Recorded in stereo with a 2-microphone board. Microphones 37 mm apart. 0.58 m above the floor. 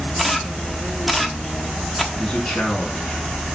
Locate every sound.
0.2 s a camera shutter: 5° right (ahead or behind), 1.2 m
2.1 s a man speaking: 20° left (ahead or behind), 4.5 m